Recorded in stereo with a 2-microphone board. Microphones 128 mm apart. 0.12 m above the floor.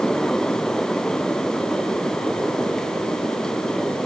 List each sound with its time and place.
Only background noise.